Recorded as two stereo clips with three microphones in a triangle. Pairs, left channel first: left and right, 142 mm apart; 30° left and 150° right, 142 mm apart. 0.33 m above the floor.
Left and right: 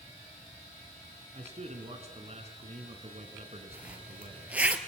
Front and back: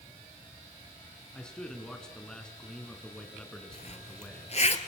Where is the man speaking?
55° right, 4 m.